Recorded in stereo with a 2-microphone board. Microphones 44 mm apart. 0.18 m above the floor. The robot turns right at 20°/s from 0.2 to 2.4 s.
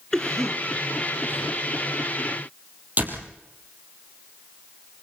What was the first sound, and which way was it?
A cough, 10° left (ahead or behind).